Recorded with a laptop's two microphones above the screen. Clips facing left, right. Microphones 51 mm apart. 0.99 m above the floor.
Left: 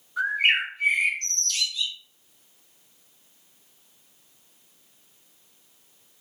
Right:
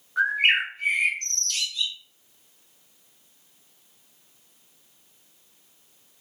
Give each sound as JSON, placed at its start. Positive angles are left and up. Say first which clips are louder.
{"t": 0.2, "sound": "a bird", "louder": "right 1 dB", "side_deg": -45, "distance_m": 1.5}